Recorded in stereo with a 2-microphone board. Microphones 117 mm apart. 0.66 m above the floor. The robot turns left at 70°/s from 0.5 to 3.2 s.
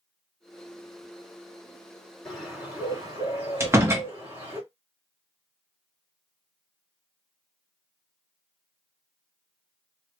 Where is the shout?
No shout in this recording.